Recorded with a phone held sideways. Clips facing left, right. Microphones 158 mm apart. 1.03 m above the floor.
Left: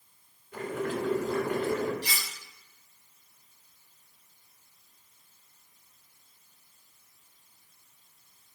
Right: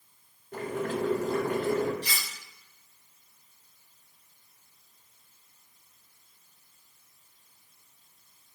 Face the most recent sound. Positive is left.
turn(degrees=85)